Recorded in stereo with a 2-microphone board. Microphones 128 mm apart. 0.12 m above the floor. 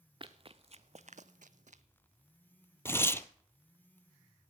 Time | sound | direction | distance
0.2 | running footsteps | 40° right (ahead or behind) | 0.9 m
2.9 | tearing paper | 20° left (ahead or behind) | 0.6 m